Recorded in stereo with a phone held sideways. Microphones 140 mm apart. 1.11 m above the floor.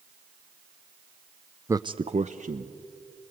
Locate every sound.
1.7 s a man speaking: 20° right (ahead or behind), 0.5 m; by 2.7 s 65° right (ahead or behind), 1.3 m